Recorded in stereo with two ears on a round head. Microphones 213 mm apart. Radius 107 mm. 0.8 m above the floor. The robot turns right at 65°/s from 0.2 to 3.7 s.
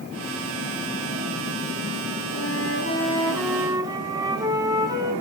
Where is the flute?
105° left, 4 m; by 5.1 s 165° right, 4 m.